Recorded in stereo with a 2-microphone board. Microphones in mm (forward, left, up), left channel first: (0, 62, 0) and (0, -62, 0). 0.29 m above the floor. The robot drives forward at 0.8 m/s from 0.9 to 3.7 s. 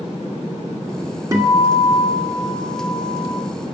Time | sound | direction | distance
1.3 | a guitar | 30° right (ahead or behind) | 1.2 m